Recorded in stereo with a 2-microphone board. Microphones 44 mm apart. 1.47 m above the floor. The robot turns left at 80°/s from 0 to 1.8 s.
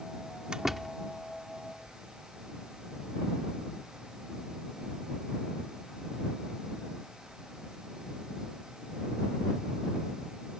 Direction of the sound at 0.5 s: 20° right (ahead or behind).